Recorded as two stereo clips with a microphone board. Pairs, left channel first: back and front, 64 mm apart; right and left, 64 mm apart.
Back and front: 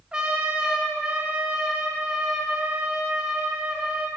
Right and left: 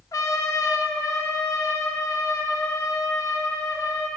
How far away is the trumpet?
About 0.9 m.